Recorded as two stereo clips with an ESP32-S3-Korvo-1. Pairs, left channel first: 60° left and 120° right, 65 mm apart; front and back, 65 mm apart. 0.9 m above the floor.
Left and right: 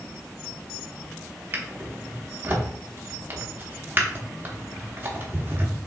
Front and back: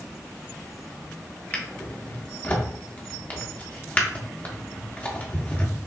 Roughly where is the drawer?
Ahead right.